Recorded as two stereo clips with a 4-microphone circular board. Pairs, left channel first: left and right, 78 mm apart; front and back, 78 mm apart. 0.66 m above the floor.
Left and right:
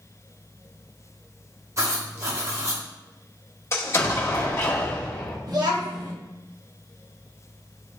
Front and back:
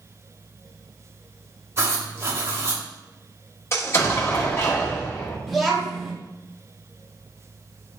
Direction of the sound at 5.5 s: 90° right.